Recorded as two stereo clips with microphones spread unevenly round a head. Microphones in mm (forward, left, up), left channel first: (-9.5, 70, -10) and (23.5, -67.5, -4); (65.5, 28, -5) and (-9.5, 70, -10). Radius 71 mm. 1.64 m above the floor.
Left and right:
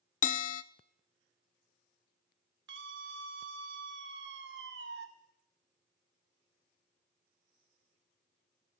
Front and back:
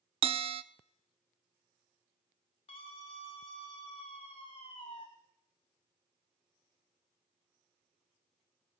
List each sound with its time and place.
0.2 s a bell: 140° left, 0.6 m
2.7 s a scream: 80° right, 1.7 m